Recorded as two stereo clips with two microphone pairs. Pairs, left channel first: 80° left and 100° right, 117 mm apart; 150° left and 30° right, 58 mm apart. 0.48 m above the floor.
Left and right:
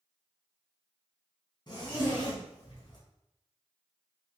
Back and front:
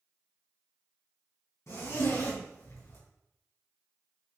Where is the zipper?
125° left, 2.5 m.